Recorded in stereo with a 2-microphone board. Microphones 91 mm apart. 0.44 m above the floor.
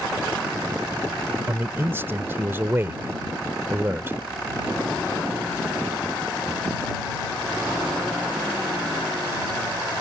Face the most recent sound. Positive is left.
turn(degrees=-25)  # may be behind; listen again after turning